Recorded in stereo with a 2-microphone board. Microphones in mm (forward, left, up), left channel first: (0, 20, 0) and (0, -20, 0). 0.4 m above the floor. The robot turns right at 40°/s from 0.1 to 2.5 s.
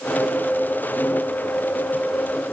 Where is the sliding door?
I don't hear a sliding door.